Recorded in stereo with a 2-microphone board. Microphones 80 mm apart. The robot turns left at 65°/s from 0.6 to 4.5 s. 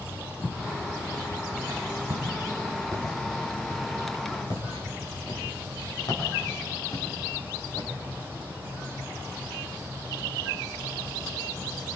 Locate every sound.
0.4 s footsteps: 25° right (ahead or behind), 6 m; by 7.9 s 45° left (ahead or behind), 10.5 m